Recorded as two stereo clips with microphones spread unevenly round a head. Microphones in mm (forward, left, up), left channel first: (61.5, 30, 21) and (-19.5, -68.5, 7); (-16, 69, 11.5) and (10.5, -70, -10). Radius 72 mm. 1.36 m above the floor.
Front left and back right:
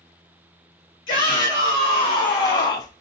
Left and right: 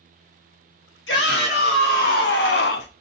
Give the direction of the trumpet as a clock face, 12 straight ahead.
I don't hear a trumpet.